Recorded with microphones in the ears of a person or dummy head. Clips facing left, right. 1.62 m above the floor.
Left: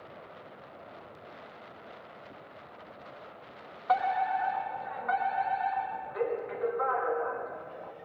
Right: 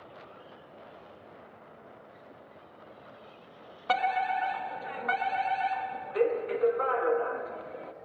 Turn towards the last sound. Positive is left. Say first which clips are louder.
# left 1 dB
turn(degrees=-40)  # may be behind; listen again after turning